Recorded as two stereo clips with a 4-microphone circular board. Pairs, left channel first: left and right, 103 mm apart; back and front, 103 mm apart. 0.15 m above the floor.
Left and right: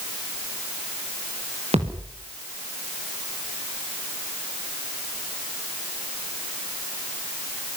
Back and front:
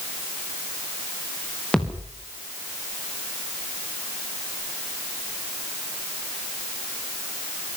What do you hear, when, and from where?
1.7 s a thud: 100° right, 5.5 m